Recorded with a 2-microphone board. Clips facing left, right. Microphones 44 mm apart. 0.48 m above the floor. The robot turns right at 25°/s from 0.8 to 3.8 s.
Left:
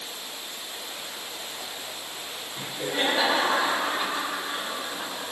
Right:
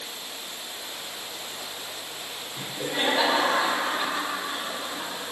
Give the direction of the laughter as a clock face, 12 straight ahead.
1 o'clock.